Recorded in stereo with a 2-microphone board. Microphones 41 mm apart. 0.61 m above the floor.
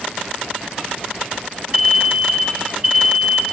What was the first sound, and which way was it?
An alarm, 45° right (ahead or behind).